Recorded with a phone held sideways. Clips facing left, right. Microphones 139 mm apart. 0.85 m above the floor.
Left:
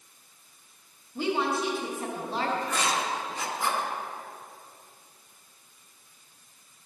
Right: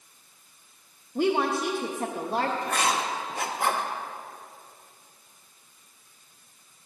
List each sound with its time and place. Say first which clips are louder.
1.1 s a woman speaking: right 3 dB; 50° right (ahead or behind), 0.7 m
2.6 s writing: right 2 dB; 60° right (ahead or behind), 1.0 m